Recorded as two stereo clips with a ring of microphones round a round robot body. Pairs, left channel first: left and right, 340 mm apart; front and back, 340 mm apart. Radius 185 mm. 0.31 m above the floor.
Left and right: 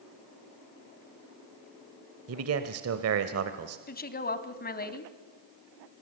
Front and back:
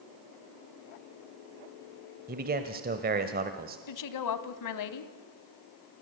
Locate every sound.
2.3 s a man speaking: 125° right, 1.2 m
3.9 s a woman speaking: 25° left, 2 m